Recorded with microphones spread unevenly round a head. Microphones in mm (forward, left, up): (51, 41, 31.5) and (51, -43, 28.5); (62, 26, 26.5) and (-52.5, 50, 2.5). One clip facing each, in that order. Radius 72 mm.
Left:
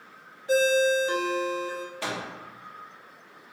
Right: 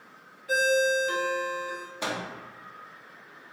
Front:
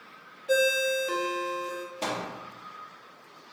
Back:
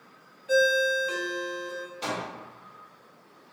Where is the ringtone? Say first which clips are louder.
Left 2 dB, back 2 dB; 30° left, 0.6 m.